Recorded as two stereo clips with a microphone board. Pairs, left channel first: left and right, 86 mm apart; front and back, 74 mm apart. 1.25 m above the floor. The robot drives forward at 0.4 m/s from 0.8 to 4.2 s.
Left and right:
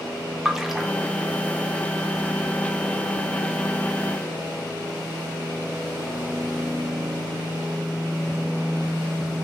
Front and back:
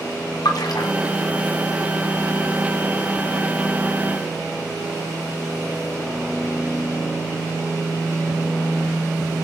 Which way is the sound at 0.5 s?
5° right.